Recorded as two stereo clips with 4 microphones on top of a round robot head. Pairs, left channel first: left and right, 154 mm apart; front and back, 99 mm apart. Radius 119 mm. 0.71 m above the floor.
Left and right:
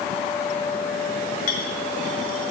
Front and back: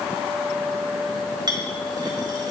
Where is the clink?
135° left, 1.9 m.